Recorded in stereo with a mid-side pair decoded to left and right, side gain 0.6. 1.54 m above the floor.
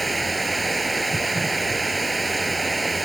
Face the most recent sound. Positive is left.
turn(degrees=-15)